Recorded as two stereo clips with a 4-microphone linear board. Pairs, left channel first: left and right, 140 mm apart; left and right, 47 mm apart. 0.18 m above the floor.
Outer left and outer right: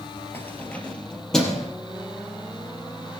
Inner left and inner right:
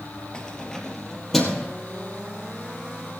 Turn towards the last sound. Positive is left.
turn(degrees=0)  # may be behind; listen again after turning